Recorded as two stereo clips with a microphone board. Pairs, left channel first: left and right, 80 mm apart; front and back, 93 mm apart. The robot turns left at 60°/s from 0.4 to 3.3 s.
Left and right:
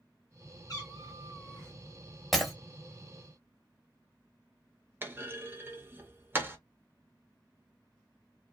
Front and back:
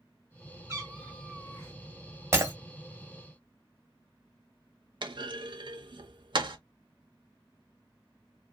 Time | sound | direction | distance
0.7 | a cat meowing | 120° left | 1.5 m
2.3 | breaking glass | straight behind | 0.9 m
5.0 | a clunk | 150° right | 0.6 m